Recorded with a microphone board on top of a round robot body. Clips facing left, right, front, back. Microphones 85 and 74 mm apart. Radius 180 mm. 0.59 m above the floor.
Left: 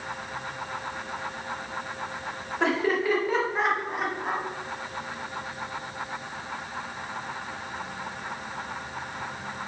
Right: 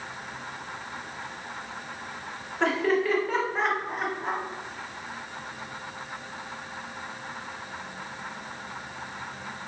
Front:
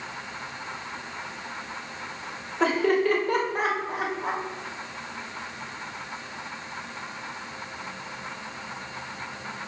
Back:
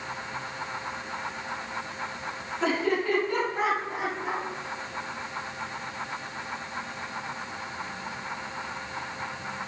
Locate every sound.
2.6 s laughter: 5° left, 3.5 m